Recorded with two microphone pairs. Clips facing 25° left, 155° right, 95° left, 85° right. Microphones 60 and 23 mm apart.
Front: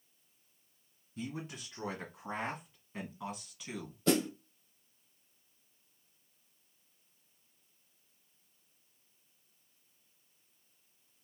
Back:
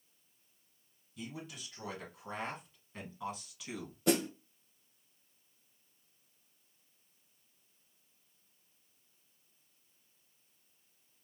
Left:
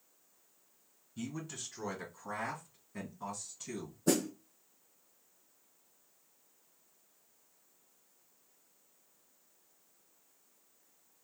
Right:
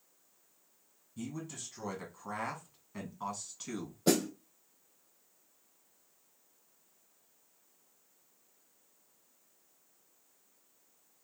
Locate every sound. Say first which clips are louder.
1.2 s a man speaking: front 4 dB, even; 40° left, 1.8 m; by 4.0 s 80° right, 2.5 m
4.1 s a snare drum: front 1 dB, right 2 dB; 80° right, 1.5 m